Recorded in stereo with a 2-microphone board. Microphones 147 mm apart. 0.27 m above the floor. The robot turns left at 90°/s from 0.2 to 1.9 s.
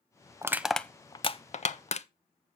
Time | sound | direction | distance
0.4 | crushing | 20° right (ahead or behind) | 0.5 m